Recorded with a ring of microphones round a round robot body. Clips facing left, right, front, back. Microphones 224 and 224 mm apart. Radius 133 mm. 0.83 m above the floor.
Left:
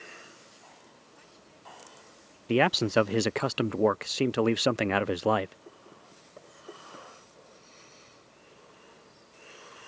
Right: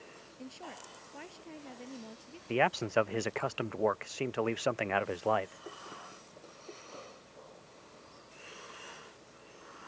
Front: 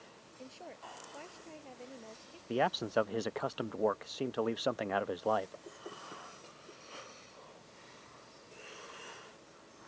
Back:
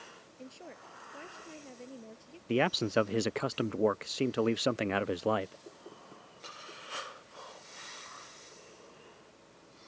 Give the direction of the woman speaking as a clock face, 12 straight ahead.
4 o'clock.